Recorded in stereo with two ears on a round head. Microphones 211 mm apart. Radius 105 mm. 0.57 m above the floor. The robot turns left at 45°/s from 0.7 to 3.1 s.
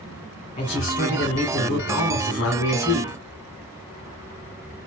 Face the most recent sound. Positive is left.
turn(degrees=45)